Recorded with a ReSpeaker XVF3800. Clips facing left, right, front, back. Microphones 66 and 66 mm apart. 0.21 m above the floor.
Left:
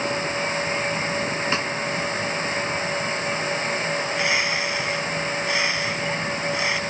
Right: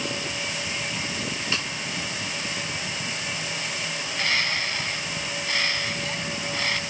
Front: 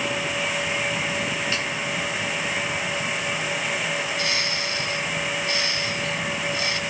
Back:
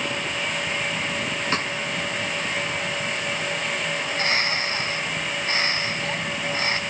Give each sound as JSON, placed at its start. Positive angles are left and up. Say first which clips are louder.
{"t": 1.5, "sound": "a snare drum", "louder": "left 3 dB, back 2 dB", "azimuth_deg": 145, "distance_m": 1.1}
{"t": 4.0, "sound": "a bird", "louder": "even, back 2 dB", "azimuth_deg": 160, "distance_m": 2.0}